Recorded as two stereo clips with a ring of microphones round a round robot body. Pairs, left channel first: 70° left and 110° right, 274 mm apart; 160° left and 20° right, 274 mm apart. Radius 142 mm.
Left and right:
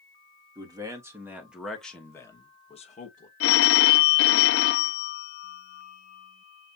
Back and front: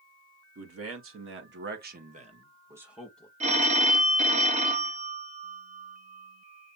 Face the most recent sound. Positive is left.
turn(degrees=40)